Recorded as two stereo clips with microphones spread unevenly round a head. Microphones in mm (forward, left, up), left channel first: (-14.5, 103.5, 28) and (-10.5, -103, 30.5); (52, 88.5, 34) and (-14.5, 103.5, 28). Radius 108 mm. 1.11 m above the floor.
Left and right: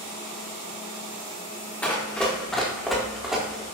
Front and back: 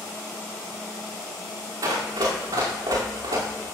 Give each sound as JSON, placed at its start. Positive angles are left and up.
{"t": 1.8, "sound": "running footsteps", "azimuth_deg": 175, "distance_m": 5.0}